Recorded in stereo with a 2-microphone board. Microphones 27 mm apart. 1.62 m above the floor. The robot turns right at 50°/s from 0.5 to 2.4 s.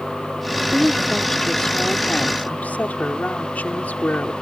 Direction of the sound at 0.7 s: 15° right.